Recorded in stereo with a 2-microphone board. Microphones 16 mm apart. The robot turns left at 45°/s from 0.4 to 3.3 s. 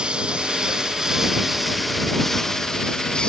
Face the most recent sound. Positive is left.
turn(degrees=55)  # may be behind; listen again after turning